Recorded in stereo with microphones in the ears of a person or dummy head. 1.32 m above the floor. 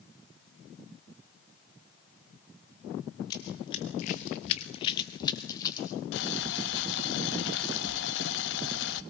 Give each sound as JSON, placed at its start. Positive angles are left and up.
{"t": 3.3, "sound": "running footsteps", "side_deg": 20, "distance_m": 2.0}
{"t": 6.1, "sound": "boiling", "side_deg": 70, "distance_m": 1.6}